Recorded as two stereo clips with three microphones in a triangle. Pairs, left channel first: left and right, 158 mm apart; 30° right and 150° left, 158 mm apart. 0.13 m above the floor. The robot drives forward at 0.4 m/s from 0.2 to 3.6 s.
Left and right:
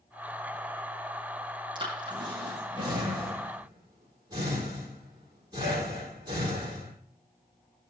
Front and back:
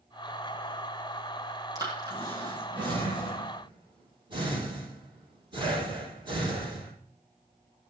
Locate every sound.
1.8 s breathing: 145° right, 3.5 m; by 6.9 s 150° right, 4 m